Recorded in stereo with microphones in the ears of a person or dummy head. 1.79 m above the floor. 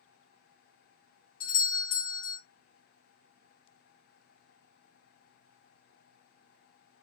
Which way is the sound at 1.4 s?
55° left (ahead or behind).